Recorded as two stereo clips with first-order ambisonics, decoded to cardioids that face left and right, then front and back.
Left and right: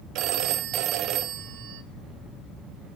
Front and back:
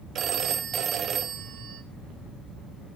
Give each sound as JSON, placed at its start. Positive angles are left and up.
{"t": 0.1, "sound": "a phone ringing", "azimuth_deg": -125, "distance_m": 0.7}